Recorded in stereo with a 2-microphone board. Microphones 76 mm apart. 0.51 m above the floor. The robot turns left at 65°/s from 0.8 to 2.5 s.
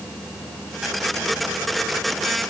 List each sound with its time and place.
Only background noise.